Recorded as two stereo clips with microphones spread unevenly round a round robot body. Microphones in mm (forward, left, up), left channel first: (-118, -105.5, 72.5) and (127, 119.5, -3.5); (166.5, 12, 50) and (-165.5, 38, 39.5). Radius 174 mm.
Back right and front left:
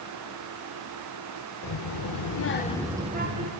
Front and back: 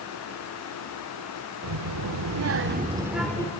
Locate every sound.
1.6 s a child speaking: 150° right, 1.9 m; by 3.5 s 75° left, 1.5 m